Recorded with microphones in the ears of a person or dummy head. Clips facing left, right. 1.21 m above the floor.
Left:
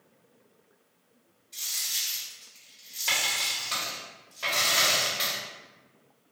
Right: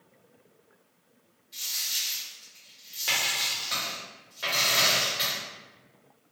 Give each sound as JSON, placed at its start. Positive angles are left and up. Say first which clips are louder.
{"t": 1.5, "sound": "a dropped coin", "louder": "even", "side_deg": -15, "distance_m": 1.4}